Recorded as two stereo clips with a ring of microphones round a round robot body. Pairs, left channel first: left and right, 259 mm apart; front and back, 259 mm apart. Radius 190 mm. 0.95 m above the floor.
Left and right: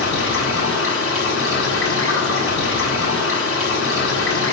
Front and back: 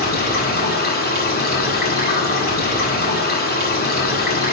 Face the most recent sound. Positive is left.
turn(degrees=55)